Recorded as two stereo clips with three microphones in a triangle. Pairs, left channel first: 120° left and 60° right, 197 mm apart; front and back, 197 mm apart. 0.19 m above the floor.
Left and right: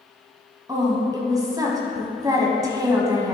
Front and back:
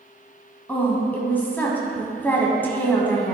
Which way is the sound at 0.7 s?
60° right.